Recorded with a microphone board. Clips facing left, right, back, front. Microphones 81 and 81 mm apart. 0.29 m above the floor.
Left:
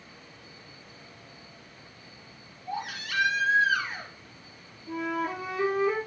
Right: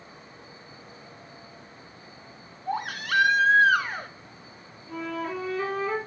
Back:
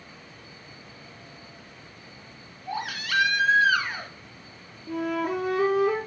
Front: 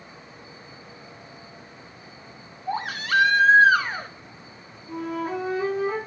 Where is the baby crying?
55° right, 1.8 m.